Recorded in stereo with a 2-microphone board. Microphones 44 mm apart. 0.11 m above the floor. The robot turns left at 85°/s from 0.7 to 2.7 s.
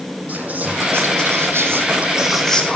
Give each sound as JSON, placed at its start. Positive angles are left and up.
{"t": 0.3, "sound": "whispering", "azimuth_deg": -35, "distance_m": 4.5}